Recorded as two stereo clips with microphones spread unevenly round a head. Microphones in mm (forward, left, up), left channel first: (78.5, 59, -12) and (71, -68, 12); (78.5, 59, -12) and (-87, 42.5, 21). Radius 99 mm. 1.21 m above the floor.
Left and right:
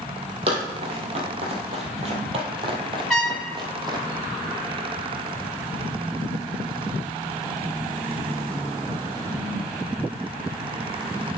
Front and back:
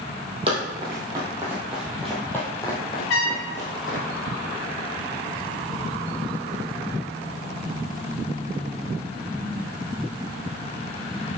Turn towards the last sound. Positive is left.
turn(degrees=-5)